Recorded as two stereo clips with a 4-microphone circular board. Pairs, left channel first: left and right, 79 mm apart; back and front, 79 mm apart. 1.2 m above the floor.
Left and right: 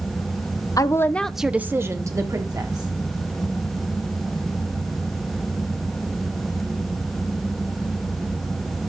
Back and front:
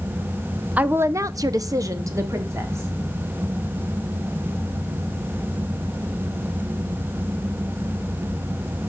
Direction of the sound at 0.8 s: 65° left.